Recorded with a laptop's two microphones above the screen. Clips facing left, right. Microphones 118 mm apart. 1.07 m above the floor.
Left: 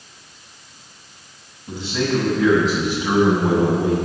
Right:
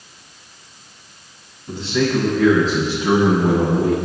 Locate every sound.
1.7 s a man speaking: 5° left (ahead or behind), 8 m; by 4.0 s 10° right (ahead or behind), 9 m